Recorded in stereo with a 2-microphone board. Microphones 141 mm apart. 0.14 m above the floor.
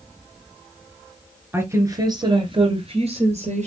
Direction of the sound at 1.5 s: 15° right (ahead or behind).